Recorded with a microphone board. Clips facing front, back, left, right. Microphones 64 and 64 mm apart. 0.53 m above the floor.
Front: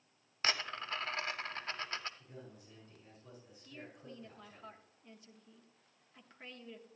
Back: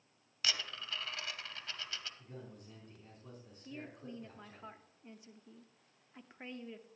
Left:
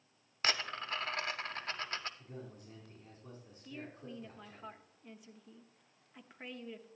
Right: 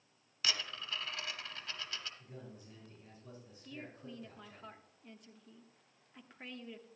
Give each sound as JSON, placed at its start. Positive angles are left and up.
{"t": 0.4, "sound": "a dropped coin", "azimuth_deg": 50, "distance_m": 0.6}
{"t": 2.2, "sound": "a man speaking", "azimuth_deg": 140, "distance_m": 4.5}
{"t": 3.6, "sound": "a woman speaking", "azimuth_deg": 165, "distance_m": 0.8}